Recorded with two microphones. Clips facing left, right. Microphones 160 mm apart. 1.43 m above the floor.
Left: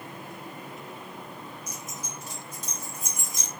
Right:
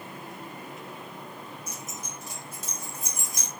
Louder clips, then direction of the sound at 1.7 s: Even; 30° right (ahead or behind).